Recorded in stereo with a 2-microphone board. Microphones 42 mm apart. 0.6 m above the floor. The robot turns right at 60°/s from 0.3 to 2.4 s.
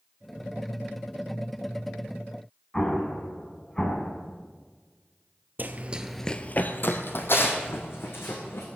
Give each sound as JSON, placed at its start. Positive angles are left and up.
{"t": 2.7, "sound": "an explosion", "side_deg": 15, "distance_m": 1.9}
{"t": 5.6, "sound": "running footsteps", "side_deg": -50, "distance_m": 0.9}